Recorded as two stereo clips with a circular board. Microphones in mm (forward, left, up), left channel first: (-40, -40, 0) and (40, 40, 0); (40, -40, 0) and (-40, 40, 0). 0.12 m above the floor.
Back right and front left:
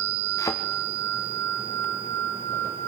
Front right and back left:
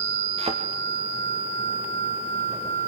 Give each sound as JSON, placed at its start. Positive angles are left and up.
{"t": 0.4, "sound": "a thud", "azimuth_deg": 165, "distance_m": 3.5}